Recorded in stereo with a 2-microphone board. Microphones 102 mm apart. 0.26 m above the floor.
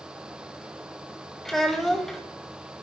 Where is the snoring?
I don't hear snoring.